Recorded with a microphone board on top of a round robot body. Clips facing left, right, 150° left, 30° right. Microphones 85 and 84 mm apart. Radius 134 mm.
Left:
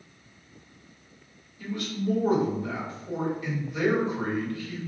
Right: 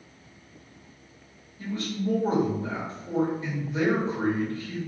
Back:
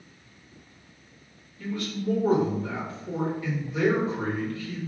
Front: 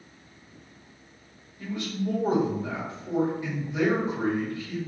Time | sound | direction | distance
1.6 | a man speaking | 75° right | 1.4 m